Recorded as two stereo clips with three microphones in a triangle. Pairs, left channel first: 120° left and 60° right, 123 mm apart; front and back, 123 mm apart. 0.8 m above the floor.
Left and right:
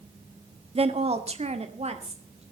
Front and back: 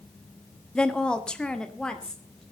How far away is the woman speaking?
About 1.3 m.